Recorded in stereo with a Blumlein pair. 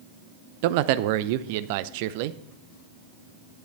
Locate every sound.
0.6 s a man speaking: 50° right, 0.5 m